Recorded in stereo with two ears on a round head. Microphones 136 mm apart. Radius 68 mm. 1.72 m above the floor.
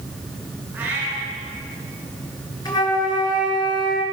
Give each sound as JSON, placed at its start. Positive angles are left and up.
{"t": 0.7, "sound": "a cat meowing", "side_deg": -15, "distance_m": 9.0}
{"t": 2.6, "sound": "a flute", "side_deg": 30, "distance_m": 5.5}